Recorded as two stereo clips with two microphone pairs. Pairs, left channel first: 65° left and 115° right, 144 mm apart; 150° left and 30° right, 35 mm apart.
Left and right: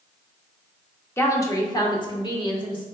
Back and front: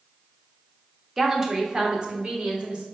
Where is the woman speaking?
35° left, 0.8 m; by 2.8 s 20° left, 1.4 m.